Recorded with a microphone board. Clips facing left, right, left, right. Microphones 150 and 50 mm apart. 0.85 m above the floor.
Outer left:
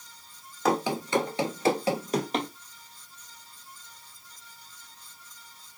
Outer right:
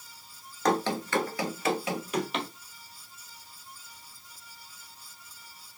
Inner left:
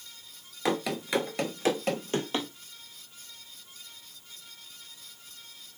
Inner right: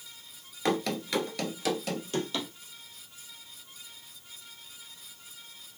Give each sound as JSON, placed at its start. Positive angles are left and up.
{"t": 0.7, "sound": "running footsteps", "side_deg": 5, "distance_m": 0.8}